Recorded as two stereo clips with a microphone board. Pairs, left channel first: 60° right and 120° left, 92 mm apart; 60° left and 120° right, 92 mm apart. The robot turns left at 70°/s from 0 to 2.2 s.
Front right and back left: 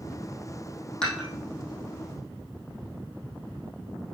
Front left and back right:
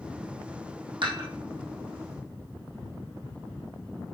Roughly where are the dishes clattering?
Behind right.